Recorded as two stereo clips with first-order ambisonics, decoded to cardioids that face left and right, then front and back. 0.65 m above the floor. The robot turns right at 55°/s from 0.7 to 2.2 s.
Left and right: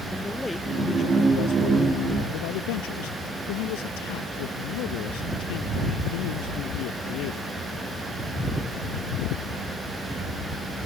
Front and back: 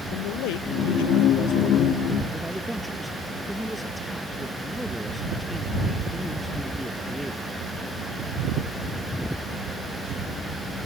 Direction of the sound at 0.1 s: 5° left.